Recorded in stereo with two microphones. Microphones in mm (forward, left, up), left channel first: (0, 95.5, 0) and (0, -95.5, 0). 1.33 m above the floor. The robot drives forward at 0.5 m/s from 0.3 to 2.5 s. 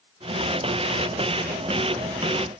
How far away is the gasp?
I don't hear a gasp.